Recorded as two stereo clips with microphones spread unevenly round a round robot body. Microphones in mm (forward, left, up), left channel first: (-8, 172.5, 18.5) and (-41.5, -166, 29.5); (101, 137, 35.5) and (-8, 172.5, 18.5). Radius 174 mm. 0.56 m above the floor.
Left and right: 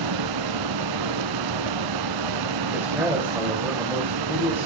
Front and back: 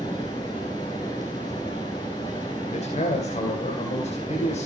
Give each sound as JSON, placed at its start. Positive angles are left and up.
{"t": 0.0, "sound": "running water", "azimuth_deg": -85, "distance_m": 0.8}
{"t": 2.7, "sound": "a man speaking", "azimuth_deg": -10, "distance_m": 3.5}